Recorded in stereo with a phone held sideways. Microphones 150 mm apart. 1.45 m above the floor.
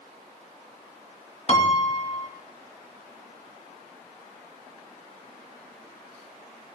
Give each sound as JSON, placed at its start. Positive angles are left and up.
{"t": 1.5, "sound": "a piano", "side_deg": 45, "distance_m": 2.0}